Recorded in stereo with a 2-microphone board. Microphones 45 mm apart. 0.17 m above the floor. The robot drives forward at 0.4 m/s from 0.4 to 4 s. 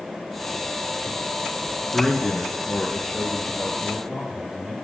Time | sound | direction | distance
1.9 | a man speaking | 5° right (ahead or behind) | 1.6 m